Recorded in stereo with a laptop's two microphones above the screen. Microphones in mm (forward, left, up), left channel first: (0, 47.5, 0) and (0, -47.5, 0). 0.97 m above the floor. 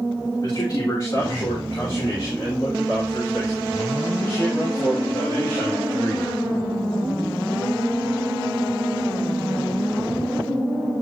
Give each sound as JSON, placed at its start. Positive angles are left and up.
{"t": 0.4, "sound": "a man speaking", "side_deg": 45, "distance_m": 3.5}